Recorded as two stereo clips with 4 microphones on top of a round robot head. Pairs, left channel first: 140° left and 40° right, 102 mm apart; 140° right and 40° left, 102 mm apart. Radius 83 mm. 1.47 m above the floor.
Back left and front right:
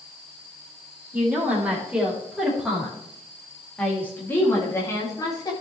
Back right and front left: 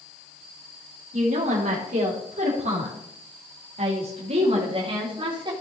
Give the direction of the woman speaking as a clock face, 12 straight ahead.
11 o'clock.